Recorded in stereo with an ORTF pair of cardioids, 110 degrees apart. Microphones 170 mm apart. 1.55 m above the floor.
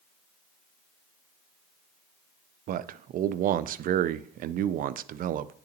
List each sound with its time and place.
2.7 s a man speaking: 55° right, 0.5 m